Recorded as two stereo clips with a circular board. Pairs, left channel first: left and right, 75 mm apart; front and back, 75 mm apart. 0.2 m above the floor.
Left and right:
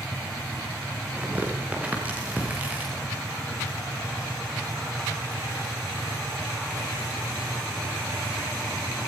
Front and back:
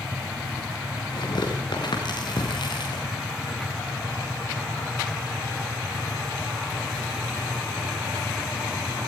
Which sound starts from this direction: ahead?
Tearing paper, at 1.1 s.